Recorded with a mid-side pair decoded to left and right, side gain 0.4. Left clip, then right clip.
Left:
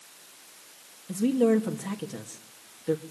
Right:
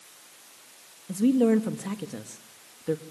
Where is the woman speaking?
15° right, 3 m.